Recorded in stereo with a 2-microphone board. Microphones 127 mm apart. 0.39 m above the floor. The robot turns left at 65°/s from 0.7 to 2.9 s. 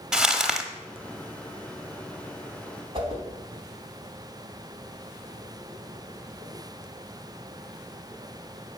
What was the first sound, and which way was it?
Crumpling, 5° right (ahead or behind).